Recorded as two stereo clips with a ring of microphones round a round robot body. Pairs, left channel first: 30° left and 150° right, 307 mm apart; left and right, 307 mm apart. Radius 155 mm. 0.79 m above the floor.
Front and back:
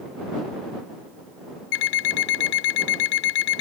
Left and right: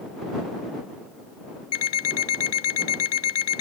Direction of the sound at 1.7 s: 45° left.